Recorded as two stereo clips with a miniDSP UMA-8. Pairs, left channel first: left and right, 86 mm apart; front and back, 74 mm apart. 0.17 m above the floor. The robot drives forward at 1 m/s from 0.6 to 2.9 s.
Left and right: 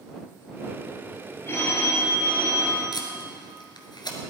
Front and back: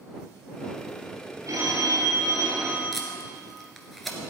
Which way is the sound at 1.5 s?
145° left.